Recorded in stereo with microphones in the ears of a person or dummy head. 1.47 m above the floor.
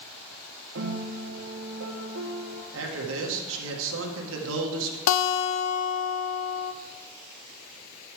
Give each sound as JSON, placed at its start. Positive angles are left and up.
{"t": 0.8, "sound": "a piano", "side_deg": -75, "distance_m": 1.2}
{"t": 2.7, "sound": "a man speaking", "side_deg": -75, "distance_m": 1.8}
{"t": 5.1, "sound": "a guitar", "side_deg": 70, "distance_m": 0.6}